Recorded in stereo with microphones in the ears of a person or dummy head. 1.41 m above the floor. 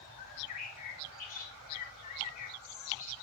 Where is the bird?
45° left (ahead or behind), 1.9 m.